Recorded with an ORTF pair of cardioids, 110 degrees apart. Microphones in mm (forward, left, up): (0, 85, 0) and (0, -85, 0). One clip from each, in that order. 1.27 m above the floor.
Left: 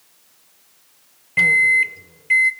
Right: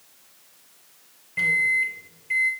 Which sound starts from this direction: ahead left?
A microwave, at 1.4 s.